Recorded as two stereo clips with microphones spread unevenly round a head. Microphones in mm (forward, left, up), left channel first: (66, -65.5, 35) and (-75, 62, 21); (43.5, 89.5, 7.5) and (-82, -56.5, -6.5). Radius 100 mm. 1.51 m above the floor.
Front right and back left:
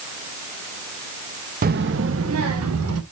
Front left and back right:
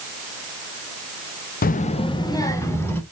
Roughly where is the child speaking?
Left.